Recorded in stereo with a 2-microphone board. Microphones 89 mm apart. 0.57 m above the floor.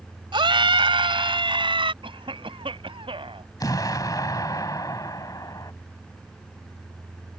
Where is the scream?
70° right (ahead or behind).